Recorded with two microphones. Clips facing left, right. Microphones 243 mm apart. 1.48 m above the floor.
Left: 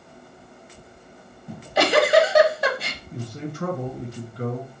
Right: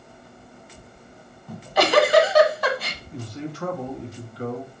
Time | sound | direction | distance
1.5 | a giggle | 25° left (ahead or behind) | 1.2 m
3.1 | a man speaking | 50° left (ahead or behind) | 1.5 m